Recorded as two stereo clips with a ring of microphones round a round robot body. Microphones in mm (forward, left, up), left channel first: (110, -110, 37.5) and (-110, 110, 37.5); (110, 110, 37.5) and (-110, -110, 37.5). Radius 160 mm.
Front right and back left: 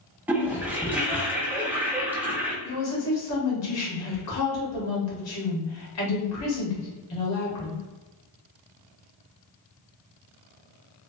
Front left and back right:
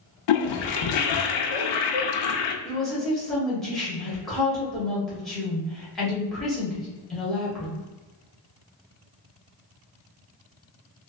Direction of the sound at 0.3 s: 50° left.